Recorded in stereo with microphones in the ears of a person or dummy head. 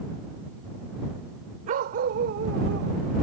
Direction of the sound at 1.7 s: 45° right (ahead or behind).